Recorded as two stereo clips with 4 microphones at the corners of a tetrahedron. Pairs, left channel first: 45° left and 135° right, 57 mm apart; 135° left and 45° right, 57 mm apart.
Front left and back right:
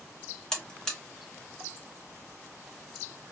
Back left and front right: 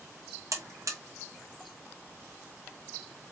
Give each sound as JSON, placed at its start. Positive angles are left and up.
{"t": 0.5, "sound": "a buzzer", "azimuth_deg": -35, "distance_m": 0.9}